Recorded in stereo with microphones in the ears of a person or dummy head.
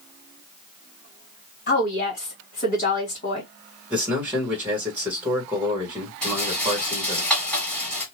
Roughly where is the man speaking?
Centre.